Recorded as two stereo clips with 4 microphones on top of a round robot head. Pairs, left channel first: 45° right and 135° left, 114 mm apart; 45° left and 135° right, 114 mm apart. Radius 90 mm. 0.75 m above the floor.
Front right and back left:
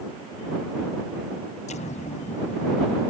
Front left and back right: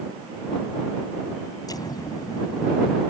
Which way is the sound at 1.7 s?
15° right.